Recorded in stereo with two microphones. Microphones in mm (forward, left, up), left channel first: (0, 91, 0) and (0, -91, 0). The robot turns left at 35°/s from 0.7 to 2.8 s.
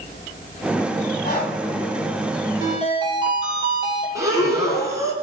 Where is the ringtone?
15° right (ahead or behind), 4 m; by 4.0 s 25° right (ahead or behind), 4 m.